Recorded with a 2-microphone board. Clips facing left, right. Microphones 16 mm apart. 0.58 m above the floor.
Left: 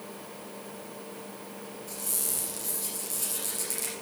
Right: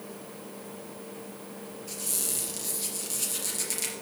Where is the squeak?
25° right (ahead or behind), 3.5 m.